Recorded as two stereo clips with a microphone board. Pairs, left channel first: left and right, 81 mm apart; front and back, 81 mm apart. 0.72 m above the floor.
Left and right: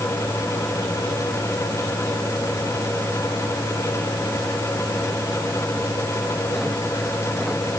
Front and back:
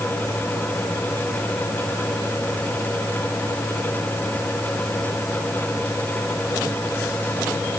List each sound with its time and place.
Only background noise.